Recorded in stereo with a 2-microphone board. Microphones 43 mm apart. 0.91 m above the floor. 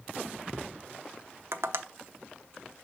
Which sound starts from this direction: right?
Tapping, at 1.5 s.